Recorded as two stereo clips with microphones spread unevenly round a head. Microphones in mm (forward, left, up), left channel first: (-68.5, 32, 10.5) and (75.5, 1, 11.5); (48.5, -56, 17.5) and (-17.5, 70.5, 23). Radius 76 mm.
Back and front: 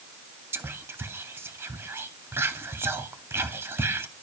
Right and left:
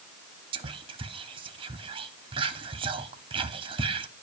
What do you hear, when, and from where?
0.5 s whispering: 65° left, 0.7 m